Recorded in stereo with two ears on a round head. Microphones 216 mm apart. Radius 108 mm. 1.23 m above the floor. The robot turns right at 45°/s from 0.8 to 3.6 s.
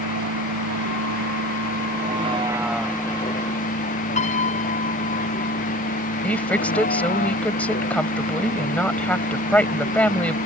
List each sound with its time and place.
0.0 s a vehicle: 90° right; by 10.5 s 40° left (ahead or behind)
4.2 s a piano: 30° left (ahead or behind)
6.2 s a woman speaking: 5° left (ahead or behind)